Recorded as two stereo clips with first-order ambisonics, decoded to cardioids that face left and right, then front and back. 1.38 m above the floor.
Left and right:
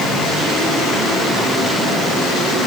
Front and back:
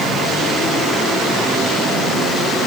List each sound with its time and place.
Only background noise.